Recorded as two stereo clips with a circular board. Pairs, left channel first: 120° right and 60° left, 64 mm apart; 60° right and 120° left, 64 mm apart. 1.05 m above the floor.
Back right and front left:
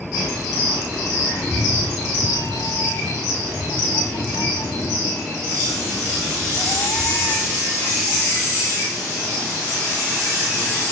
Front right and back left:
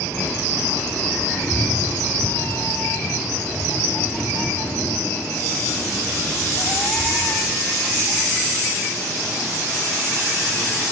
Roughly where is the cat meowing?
Right.